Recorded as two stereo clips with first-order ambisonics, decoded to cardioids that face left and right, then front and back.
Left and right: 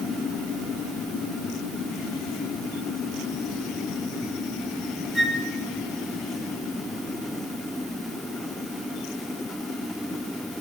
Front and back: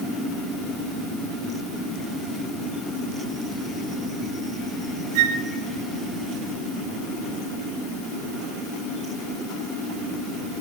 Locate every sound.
5.2 s a flute: 175° right, 0.9 m